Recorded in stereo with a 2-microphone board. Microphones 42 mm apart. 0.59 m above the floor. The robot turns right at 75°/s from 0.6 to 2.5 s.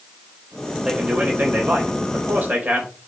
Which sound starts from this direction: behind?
A man speaking, at 0.8 s.